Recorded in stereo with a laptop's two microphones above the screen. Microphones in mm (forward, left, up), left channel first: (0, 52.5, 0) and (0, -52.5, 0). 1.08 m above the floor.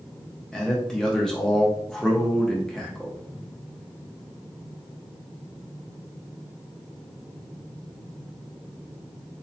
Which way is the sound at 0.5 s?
5° left (ahead or behind).